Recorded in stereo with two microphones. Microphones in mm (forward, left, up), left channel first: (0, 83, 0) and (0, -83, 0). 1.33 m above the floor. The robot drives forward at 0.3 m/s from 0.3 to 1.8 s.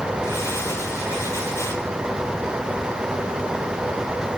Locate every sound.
Only background noise.